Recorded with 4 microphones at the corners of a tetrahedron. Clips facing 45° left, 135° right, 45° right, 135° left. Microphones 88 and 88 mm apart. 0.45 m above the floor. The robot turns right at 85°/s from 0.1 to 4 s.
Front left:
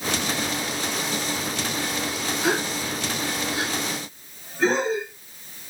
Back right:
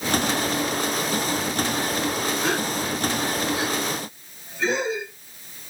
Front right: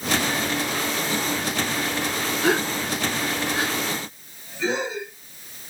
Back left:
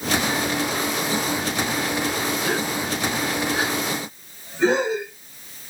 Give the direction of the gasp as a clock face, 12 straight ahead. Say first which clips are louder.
Even, front right 2 dB; 1 o'clock.